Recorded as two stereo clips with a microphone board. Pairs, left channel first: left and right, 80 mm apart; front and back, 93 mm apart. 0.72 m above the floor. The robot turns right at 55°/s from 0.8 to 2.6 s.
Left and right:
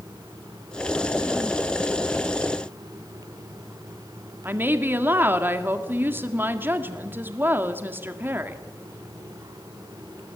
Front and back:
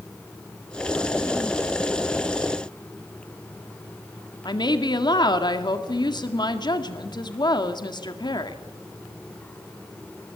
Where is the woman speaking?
30° right, 1.8 m.